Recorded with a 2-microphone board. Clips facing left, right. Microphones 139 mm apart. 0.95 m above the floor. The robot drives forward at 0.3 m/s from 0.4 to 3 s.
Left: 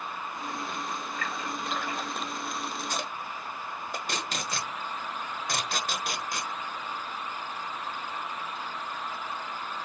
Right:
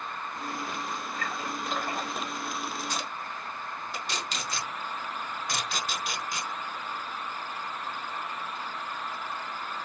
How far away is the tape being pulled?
About 0.9 m.